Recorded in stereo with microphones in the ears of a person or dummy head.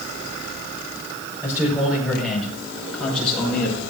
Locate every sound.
1.4 s a man speaking: 5° right (ahead or behind), 4.5 m; by 3.8 s 10° left (ahead or behind), 6 m